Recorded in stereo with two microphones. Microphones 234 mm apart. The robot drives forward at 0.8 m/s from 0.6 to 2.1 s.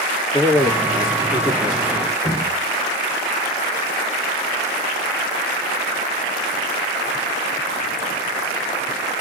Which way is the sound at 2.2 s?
5° right (ahead or behind).